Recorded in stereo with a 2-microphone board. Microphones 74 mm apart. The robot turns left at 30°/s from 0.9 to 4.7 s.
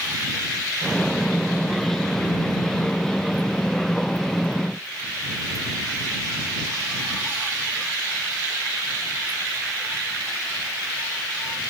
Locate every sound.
Only background noise.